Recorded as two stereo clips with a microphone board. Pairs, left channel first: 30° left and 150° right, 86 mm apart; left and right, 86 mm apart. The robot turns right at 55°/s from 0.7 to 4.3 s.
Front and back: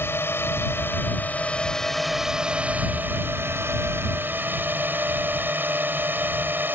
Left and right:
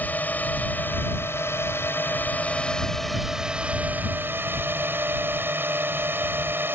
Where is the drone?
45° left; by 6.8 s 115° right.